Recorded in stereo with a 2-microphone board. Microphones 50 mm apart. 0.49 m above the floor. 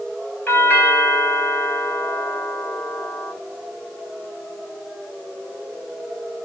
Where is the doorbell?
45° left (ahead or behind), 5 m.